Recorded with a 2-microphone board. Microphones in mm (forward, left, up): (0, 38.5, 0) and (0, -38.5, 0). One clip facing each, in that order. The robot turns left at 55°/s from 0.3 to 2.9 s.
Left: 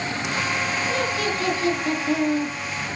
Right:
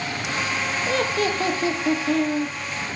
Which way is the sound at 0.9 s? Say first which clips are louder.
Right 5 dB; 115° right.